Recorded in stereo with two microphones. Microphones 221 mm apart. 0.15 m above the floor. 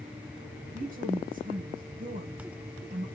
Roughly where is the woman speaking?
Right.